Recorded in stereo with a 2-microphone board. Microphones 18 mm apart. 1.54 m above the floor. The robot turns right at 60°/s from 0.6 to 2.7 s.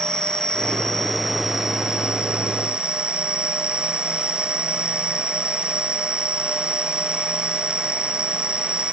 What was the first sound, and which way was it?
An insect, 135° left.